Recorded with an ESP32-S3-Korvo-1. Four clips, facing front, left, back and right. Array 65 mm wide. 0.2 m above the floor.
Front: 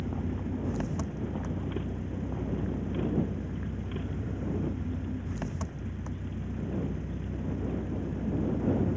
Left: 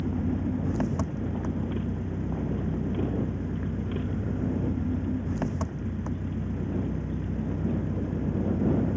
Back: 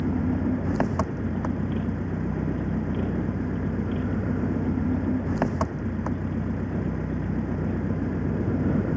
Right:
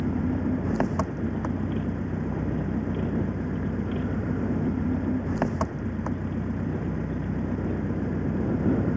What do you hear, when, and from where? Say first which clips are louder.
0.0 s an engine running: right 3 dB, back 10 dB; 150° right